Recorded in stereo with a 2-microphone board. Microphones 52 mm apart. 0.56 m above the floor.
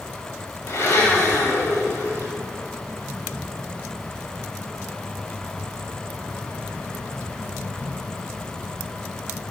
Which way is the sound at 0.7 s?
65° left (ahead or behind).